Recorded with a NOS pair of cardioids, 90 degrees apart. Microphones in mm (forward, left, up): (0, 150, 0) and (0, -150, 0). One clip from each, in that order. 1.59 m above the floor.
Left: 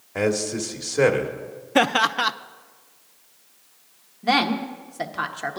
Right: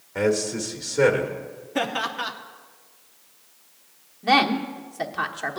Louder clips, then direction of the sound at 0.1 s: Even; 20° left.